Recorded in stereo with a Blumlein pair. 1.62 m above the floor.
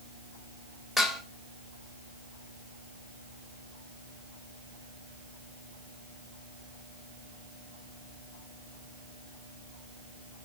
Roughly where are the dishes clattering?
Ahead.